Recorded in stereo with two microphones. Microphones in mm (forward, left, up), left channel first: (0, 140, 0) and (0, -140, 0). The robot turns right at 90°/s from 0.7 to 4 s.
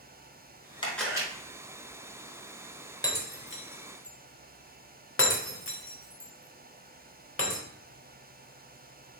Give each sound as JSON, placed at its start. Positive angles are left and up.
{"t": 0.8, "sound": "a camera shutter", "azimuth_deg": 160, "distance_m": 1.2}
{"t": 3.0, "sound": "breaking glass", "side_deg": 15, "distance_m": 0.9}